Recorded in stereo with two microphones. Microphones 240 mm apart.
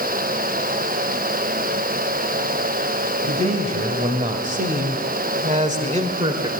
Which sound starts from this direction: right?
A man speaking, at 3.2 s.